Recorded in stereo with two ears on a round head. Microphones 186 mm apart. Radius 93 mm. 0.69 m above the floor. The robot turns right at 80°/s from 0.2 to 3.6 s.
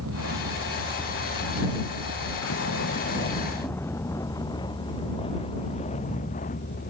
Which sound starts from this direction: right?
A vehicle, at 0.0 s.